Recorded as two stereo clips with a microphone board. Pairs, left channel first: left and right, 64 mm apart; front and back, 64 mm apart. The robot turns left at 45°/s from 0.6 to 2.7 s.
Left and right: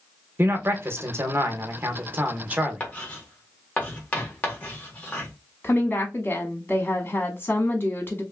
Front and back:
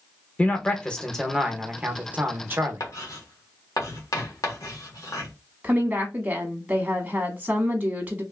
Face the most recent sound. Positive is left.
turn(degrees=120)